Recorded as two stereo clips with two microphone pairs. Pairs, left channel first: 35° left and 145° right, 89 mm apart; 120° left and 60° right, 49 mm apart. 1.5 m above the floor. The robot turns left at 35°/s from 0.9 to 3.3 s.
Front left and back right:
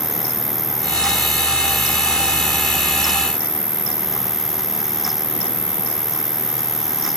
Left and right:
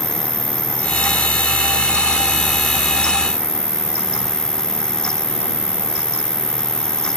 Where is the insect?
55° right; by 7.2 s 140° right.